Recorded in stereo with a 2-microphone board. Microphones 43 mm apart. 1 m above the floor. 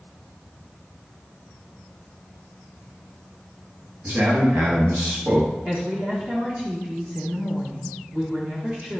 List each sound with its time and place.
4.0 s a man speaking: 50° right (ahead or behind), 1.5 m
5.7 s a woman speaking: 25° right (ahead or behind), 1.2 m